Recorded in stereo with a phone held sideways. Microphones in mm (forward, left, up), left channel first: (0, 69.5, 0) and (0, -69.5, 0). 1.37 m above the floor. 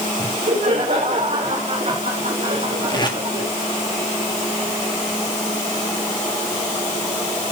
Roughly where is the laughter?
Right.